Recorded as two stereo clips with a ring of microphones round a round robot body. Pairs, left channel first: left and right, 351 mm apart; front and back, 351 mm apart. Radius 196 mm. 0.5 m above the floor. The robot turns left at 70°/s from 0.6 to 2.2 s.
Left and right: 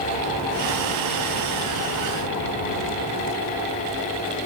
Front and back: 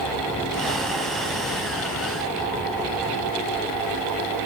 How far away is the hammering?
I don't hear hammering.